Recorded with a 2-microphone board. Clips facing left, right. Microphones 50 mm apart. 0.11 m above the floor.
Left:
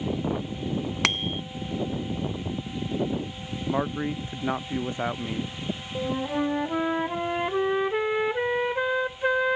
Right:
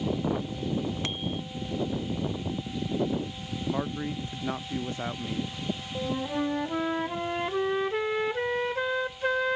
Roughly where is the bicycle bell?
Left.